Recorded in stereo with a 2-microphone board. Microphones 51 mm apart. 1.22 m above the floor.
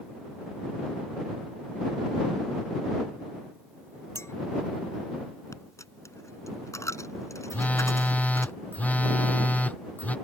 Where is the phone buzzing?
30° left (ahead or behind).